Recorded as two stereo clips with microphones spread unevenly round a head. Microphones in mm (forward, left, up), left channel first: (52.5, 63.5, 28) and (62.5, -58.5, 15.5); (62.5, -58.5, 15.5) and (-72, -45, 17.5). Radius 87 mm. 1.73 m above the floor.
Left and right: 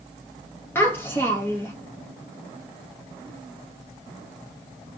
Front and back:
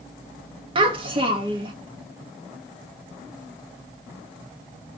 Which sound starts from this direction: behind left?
A child speaking, at 0.8 s.